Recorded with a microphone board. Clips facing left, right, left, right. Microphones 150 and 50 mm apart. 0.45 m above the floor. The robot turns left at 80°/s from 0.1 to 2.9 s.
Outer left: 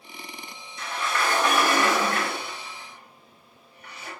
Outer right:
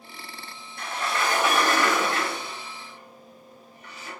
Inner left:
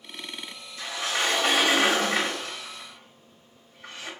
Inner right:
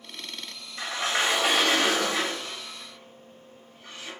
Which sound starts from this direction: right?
A sliding door, at 0.8 s.